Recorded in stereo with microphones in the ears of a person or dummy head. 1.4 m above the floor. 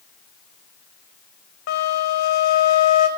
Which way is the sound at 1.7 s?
65° left (ahead or behind).